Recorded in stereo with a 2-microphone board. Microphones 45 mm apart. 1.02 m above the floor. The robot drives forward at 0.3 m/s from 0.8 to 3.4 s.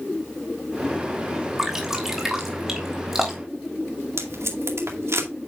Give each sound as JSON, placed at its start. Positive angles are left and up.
{"t": 1.6, "sound": "dripping", "side_deg": -10, "distance_m": 2.5}
{"t": 4.2, "sound": "tape being pulled", "side_deg": -75, "distance_m": 2.0}